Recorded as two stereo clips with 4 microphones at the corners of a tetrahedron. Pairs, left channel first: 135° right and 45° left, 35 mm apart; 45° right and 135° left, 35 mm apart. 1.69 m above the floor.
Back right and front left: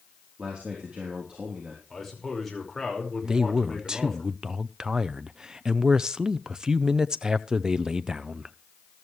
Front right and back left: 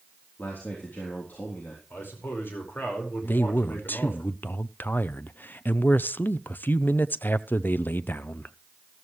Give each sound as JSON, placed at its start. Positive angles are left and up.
{"t": 0.4, "sound": "a man speaking", "azimuth_deg": -15, "distance_m": 3.5}
{"t": 1.9, "sound": "a man speaking", "azimuth_deg": -50, "distance_m": 5.0}
{"t": 3.2, "sound": "a man speaking", "azimuth_deg": -25, "distance_m": 0.6}